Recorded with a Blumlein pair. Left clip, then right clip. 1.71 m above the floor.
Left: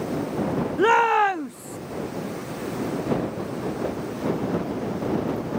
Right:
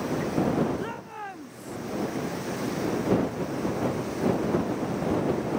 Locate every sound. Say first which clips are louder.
0.8 s a shout: left 18 dB; 60° left; by 1.8 s 25° left